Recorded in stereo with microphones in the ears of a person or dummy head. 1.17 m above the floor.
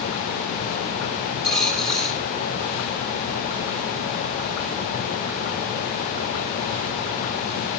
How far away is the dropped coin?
About 8 m.